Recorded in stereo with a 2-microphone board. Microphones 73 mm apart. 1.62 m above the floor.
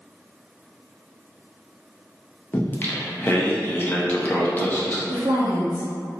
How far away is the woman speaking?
About 0.8 m.